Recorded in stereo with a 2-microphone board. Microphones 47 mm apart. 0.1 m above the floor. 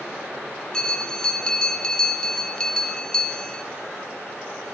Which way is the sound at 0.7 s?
15° left (ahead or behind).